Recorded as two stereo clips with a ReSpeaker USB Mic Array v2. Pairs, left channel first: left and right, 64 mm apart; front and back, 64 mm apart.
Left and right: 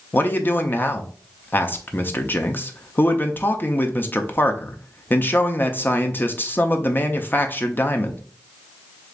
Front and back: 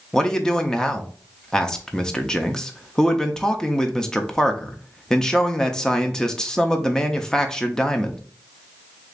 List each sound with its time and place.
0.1 s a man speaking: 75° left, 0.6 m